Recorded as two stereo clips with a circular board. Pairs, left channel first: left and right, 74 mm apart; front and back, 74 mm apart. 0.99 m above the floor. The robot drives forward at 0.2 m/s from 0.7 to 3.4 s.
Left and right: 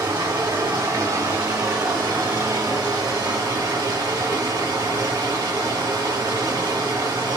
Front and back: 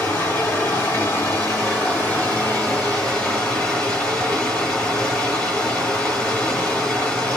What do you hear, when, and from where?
0.0 s running water: 55° right, 1.6 m; by 7.4 s 75° right, 1.3 m